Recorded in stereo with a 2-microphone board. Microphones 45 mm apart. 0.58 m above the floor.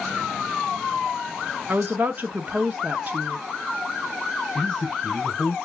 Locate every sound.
1.7 s a woman speaking: 40° right (ahead or behind), 0.8 m
4.5 s a man speaking: 20° left (ahead or behind), 4 m